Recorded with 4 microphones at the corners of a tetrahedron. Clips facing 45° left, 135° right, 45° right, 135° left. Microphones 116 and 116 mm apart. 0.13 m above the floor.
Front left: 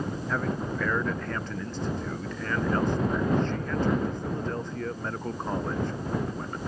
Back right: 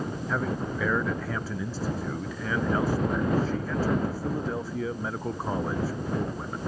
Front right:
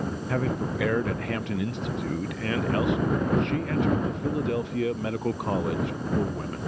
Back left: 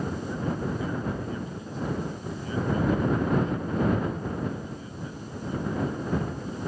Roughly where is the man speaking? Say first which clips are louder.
Back right 1 dB, front right 5 dB; ahead right.